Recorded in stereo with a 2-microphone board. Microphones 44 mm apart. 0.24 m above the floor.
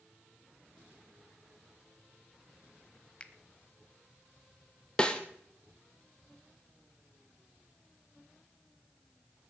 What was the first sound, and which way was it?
A finger snap, 25° left (ahead or behind).